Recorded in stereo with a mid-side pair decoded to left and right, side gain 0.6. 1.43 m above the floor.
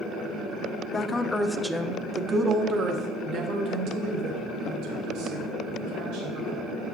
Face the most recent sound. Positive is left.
turn(degrees=-70)